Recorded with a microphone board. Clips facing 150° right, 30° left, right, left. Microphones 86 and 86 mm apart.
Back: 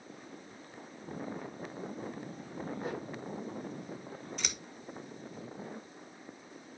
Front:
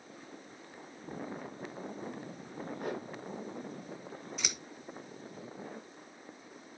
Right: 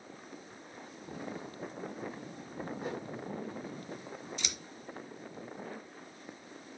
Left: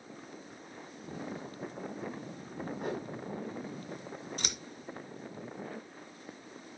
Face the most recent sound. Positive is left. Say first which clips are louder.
# front 2 dB, left 2 dB
turn(degrees=115)